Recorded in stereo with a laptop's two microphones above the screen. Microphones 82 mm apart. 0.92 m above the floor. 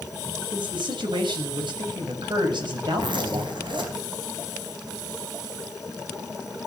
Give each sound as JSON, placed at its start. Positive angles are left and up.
{"t": 0.5, "sound": "a man speaking", "side_deg": -80, "distance_m": 6.5}
{"t": 3.0, "sound": "a zipper", "side_deg": -80, "distance_m": 4.5}